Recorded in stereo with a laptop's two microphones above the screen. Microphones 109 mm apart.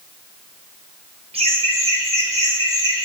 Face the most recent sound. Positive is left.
turn(degrees=-75)  # may be behind; listen again after turning